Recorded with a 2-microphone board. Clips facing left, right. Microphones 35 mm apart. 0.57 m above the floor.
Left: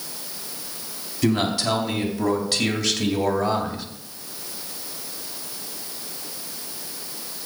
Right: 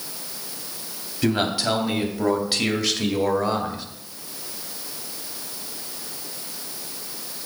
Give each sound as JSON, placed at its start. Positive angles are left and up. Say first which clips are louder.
{"t": 1.2, "sound": "a man speaking", "louder": "even", "side_deg": -15, "distance_m": 3.0}